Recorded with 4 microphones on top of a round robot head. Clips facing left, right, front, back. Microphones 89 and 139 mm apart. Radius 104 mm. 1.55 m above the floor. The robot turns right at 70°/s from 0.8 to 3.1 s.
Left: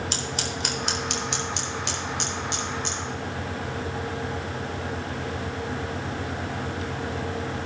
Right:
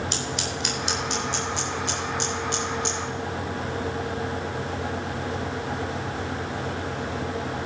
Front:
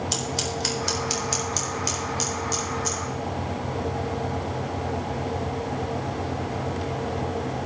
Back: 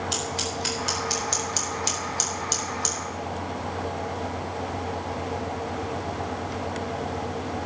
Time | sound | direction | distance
0.1 | scissors | 45° left | 4 m